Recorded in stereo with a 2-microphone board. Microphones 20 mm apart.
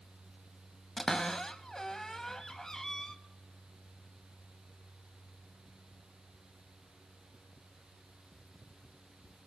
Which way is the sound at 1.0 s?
25° left (ahead or behind).